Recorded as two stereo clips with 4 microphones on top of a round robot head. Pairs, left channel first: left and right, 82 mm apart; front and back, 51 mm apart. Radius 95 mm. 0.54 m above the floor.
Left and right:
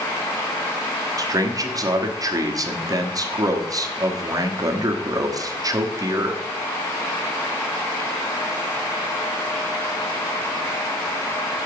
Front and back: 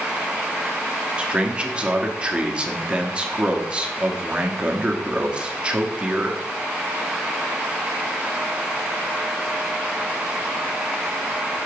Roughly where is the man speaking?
Behind right.